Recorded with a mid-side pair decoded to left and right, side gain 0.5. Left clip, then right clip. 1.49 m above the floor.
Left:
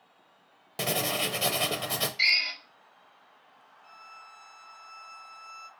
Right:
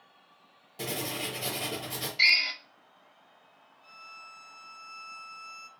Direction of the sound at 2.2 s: 15° right.